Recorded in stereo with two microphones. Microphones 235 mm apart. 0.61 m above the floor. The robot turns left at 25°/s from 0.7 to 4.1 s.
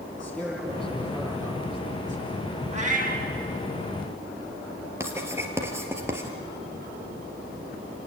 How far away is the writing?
About 2.5 m.